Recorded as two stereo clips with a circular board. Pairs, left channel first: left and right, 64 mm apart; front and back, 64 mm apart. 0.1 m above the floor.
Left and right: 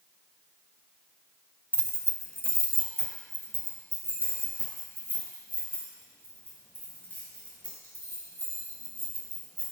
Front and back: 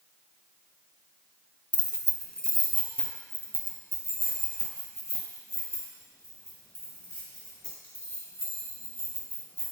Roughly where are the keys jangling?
Behind left.